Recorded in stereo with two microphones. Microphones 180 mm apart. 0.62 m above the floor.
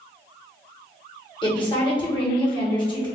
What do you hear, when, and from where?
1.4 s a woman speaking: 25° left (ahead or behind), 1.3 m